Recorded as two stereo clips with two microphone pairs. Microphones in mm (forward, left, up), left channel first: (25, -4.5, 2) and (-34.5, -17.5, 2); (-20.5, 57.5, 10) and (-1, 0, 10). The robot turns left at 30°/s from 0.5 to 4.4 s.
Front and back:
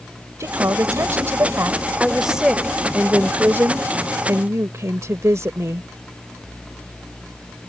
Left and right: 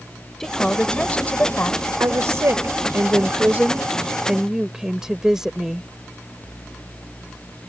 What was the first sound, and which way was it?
A woman speaking, 170° right.